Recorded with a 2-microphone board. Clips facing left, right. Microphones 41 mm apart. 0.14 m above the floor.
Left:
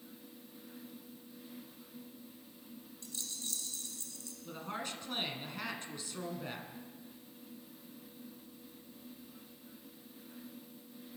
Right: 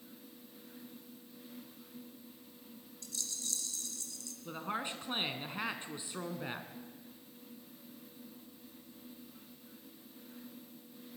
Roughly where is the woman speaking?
Right.